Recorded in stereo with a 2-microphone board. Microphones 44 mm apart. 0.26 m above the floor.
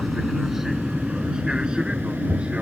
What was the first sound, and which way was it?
An aircraft, centre (ahead or behind).